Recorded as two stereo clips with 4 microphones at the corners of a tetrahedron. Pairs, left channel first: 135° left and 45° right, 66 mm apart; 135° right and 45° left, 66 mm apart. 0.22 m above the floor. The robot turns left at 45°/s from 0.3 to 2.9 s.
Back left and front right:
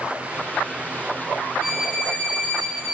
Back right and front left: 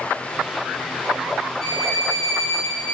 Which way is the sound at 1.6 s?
50° left.